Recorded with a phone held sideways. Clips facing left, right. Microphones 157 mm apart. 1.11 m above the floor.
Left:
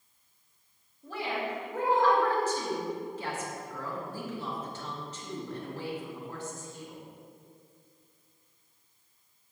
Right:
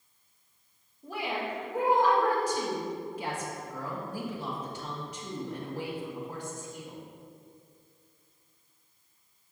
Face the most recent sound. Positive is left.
turn(degrees=-15)  # may be behind; listen again after turning